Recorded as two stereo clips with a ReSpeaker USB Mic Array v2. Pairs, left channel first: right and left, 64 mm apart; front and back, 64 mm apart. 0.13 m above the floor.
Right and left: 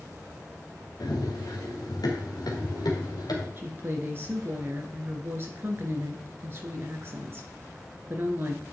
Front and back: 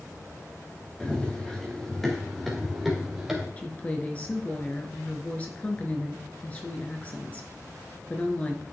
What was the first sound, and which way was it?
Running footsteps, 80° right.